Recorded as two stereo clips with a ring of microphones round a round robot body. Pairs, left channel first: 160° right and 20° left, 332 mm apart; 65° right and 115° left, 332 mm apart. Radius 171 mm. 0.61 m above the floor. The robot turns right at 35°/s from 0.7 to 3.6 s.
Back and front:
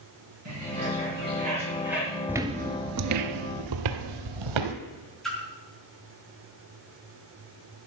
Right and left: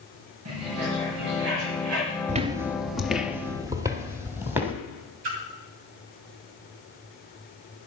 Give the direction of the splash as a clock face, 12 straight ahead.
8 o'clock.